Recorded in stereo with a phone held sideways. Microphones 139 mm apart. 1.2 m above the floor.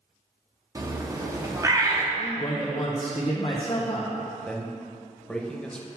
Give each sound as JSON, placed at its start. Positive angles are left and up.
{"t": 0.8, "sound": "a bird", "side_deg": -25, "distance_m": 0.7}
{"t": 2.2, "sound": "a man speaking", "side_deg": 35, "distance_m": 0.8}
{"t": 4.5, "sound": "a man speaking", "side_deg": 5, "distance_m": 0.8}